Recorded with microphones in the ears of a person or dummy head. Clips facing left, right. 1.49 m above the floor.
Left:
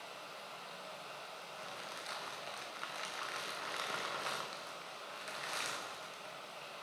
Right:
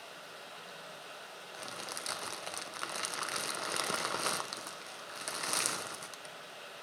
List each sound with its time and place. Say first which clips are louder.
0.0 s running water: even; 15° right (ahead or behind), 1.1 m
1.5 s crumpling: right 5 dB; 60° right (ahead or behind), 0.7 m